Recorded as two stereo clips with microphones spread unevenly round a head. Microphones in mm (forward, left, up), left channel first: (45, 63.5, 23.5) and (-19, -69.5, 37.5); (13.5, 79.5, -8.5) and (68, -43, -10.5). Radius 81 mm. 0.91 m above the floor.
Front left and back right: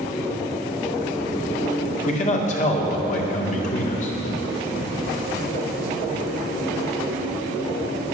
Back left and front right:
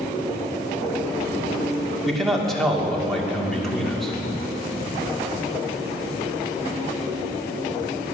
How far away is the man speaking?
About 2 m.